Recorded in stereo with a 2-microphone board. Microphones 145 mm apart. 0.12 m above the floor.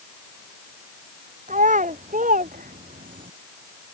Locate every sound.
1.5 s a child speaking: 60° right (ahead or behind); by 3.3 s 70° right (ahead or behind)